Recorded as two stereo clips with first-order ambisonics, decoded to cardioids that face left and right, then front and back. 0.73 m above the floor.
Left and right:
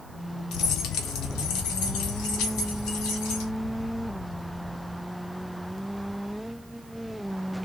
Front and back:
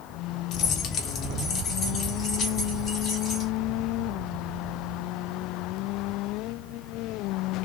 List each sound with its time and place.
0.5 s keys jangling: 45° left, 0.7 m; by 3.5 s 70° left, 2.5 m